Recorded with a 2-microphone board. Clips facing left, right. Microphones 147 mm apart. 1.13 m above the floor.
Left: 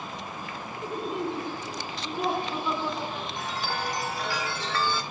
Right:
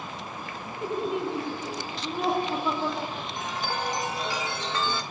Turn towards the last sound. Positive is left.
turn(degrees=-20)  # may be behind; listen again after turning